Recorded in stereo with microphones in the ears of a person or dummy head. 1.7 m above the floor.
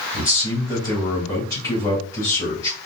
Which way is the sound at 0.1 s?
20° left (ahead or behind).